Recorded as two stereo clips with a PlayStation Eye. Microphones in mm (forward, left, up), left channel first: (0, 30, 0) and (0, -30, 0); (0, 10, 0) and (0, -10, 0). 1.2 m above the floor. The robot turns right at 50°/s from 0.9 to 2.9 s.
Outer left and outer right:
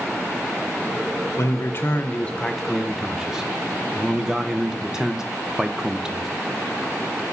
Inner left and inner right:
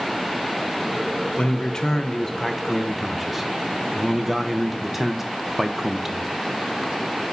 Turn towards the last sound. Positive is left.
turn(degrees=-170)